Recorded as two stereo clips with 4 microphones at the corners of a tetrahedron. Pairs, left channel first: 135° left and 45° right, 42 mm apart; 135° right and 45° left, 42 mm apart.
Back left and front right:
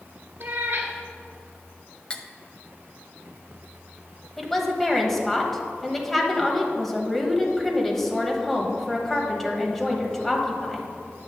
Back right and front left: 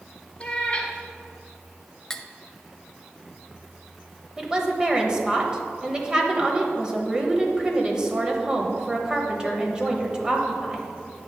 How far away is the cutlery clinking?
About 0.6 m.